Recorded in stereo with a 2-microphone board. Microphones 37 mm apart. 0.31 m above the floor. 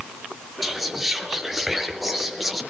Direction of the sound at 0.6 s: 5° right (ahead or behind).